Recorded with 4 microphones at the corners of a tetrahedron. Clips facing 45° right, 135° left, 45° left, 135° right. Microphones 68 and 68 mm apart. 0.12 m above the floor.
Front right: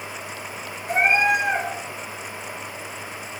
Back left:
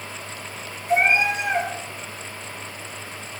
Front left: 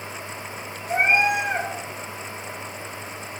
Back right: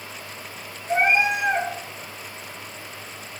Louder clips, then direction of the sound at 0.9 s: Even, even; 70° right.